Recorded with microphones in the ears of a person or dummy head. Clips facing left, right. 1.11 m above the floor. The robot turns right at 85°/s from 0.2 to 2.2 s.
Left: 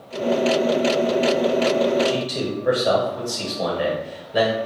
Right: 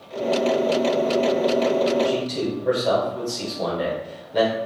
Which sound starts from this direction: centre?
A man speaking, at 2.0 s.